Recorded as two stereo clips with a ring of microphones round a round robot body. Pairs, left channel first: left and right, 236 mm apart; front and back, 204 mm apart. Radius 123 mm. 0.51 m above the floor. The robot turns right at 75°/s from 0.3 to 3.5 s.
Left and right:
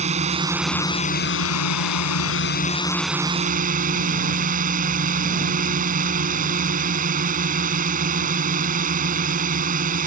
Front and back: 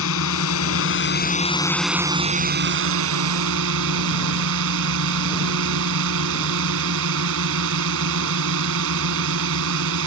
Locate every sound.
0.0 s a drone: 25° right; by 10.1 s 145° right